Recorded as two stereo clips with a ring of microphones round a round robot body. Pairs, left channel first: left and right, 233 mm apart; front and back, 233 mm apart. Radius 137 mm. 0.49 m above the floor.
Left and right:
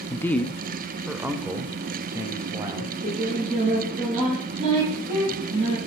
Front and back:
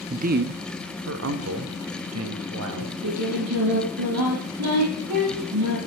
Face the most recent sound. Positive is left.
turn(degrees=-155)